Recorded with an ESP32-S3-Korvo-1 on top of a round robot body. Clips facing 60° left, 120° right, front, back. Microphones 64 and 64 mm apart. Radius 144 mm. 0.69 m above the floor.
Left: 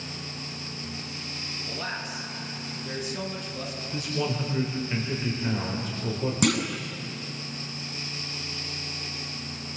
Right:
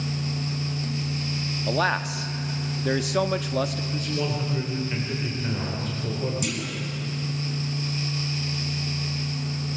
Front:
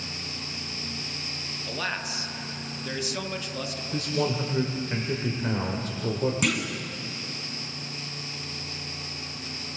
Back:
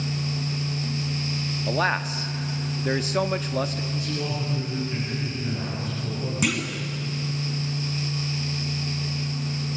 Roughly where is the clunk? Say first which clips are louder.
Left 5 dB, back 1 dB; left.